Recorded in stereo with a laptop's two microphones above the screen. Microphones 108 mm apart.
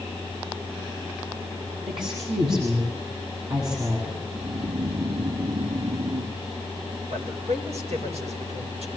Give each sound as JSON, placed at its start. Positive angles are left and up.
{"t": 1.9, "sound": "a woman speaking", "side_deg": -50, "distance_m": 8.0}
{"t": 4.3, "sound": "snoring", "side_deg": -75, "distance_m": 1.8}
{"t": 7.1, "sound": "a man speaking", "side_deg": -80, "distance_m": 5.0}